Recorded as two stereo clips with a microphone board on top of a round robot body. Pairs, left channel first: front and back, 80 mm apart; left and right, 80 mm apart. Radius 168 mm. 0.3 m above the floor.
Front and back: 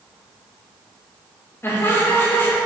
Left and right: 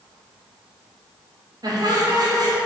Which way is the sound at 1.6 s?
60° right.